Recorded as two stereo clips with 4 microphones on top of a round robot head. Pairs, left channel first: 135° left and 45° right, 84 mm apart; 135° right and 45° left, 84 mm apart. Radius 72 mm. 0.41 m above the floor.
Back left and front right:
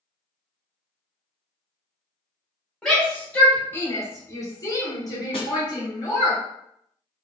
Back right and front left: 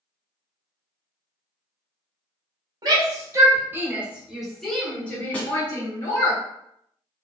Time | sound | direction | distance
2.8 | a shout | 55° left | 1.7 m
5.3 | a snare drum | 150° left | 1.1 m